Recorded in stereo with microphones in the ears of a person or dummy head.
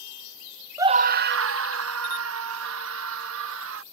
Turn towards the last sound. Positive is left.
turn(degrees=-70)  # may be behind; listen again after turning